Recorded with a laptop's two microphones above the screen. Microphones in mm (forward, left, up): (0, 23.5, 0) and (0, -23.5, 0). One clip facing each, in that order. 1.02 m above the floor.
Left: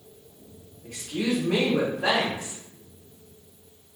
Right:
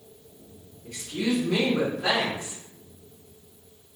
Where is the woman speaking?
55° left (ahead or behind), 1.1 m.